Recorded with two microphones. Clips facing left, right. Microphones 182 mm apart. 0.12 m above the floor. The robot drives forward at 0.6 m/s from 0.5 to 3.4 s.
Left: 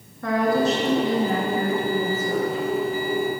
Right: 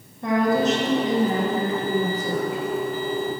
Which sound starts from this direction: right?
A woman speaking, at 0.2 s.